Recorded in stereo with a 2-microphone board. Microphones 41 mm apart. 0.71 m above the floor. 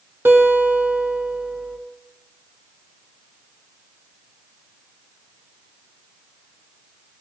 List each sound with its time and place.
0.2 s a guitar: 70° right (ahead or behind), 1.7 m